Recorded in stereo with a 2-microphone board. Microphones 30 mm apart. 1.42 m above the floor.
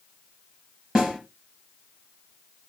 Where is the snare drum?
20° right (ahead or behind), 4.5 m.